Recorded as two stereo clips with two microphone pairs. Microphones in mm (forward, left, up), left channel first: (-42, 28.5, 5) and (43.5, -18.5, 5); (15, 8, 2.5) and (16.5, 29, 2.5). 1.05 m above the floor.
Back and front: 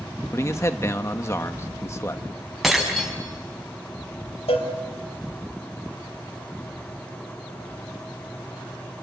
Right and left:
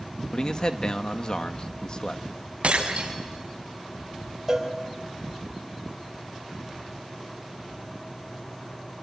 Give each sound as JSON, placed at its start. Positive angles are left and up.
{"t": 0.3, "sound": "a man speaking", "azimuth_deg": -150, "distance_m": 1.2}
{"t": 2.6, "sound": "breaking glass", "azimuth_deg": 60, "distance_m": 5.5}
{"t": 4.5, "sound": "a cowbell", "azimuth_deg": 145, "distance_m": 3.0}